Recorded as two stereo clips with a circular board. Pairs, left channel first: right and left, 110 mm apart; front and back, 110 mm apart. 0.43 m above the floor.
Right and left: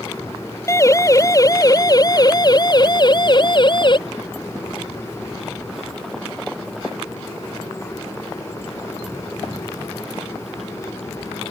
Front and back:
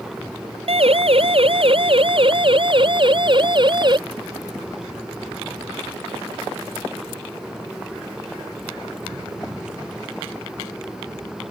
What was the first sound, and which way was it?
A siren, 155° right.